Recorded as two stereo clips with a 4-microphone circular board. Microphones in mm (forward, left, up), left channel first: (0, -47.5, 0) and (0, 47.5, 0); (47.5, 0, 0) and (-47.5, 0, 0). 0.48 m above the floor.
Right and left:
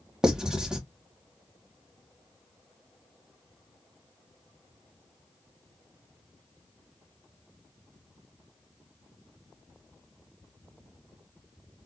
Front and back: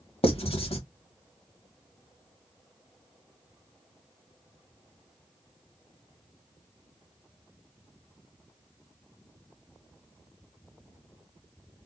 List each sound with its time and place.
0.2 s writing: 5° left, 1.1 m